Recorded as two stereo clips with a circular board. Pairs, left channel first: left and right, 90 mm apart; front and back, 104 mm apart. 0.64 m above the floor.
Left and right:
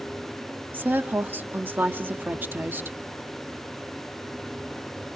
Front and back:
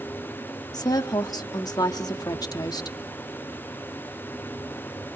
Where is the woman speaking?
30° right, 1.0 m.